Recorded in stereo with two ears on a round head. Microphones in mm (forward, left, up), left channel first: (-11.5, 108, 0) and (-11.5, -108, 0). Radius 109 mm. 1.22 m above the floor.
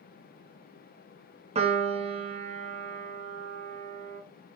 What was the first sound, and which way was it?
A piano, 25° right (ahead or behind).